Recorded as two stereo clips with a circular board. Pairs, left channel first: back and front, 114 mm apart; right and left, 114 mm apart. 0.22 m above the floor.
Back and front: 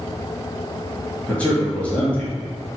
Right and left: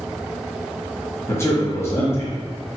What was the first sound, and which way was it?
A man speaking, 115° right.